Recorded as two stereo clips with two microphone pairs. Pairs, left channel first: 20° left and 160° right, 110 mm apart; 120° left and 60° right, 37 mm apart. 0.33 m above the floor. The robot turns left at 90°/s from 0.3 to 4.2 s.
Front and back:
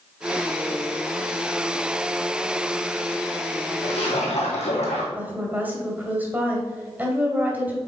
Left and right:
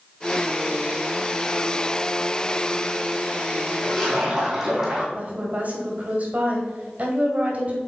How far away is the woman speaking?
About 1.9 m.